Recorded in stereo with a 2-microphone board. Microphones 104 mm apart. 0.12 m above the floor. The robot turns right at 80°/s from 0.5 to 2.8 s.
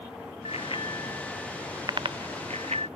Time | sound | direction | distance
0.5 | a bicycle bell | 70° left (ahead or behind) | ?